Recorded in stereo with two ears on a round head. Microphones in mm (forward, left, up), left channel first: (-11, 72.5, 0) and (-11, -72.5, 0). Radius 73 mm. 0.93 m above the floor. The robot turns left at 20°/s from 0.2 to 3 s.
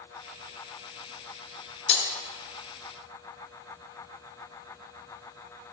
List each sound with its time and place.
1.9 s breaking glass: 40° left (ahead or behind), 0.9 m; by 2.1 s 35° left (ahead or behind), 0.9 m